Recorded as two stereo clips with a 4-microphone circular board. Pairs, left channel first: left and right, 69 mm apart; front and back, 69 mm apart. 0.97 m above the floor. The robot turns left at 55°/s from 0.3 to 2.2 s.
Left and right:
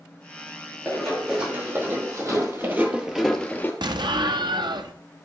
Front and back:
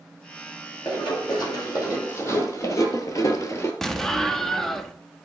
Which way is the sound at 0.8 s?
15° left.